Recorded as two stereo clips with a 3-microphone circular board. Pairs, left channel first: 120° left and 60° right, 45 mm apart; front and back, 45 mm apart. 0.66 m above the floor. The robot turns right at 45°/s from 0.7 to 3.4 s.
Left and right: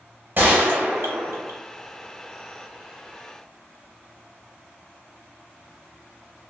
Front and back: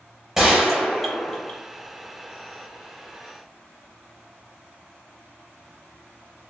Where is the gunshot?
100° right, 1.0 m; by 1.6 s 60° right, 1.0 m.